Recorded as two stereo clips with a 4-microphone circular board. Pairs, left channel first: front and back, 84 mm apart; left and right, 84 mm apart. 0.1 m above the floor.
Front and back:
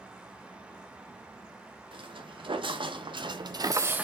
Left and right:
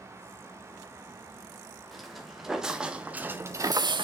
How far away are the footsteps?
About 2.5 m.